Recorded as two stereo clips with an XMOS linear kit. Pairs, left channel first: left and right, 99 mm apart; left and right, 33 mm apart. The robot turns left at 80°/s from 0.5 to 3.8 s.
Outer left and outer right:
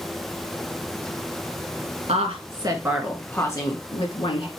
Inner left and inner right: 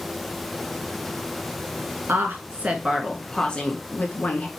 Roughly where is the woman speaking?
Right.